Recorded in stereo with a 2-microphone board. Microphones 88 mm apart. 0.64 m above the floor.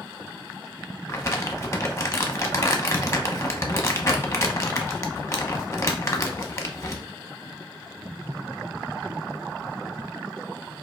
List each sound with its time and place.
1.1 s crumpling: 30° left (ahead or behind), 0.9 m